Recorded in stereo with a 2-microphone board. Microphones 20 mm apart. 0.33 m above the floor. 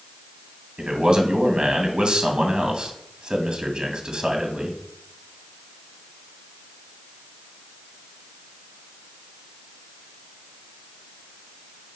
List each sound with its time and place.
0.8 s a man speaking: 45° right (ahead or behind), 2 m